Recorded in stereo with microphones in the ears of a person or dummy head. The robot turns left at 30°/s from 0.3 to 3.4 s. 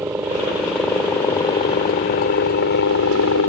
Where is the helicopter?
165° right; by 3.5 s 105° left.